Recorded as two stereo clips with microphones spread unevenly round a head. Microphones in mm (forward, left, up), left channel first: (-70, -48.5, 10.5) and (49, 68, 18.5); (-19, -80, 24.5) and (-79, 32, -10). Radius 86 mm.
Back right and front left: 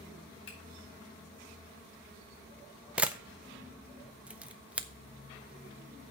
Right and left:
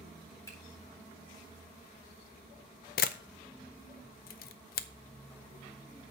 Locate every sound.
0.5 s a finger snap: 130° right, 4 m
3.0 s a camera shutter: 40° right, 0.5 m